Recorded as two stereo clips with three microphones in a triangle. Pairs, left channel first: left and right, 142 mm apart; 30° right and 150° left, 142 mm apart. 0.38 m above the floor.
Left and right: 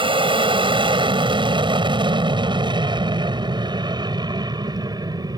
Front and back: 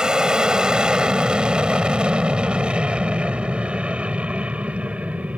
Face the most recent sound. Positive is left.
turn(degrees=-135)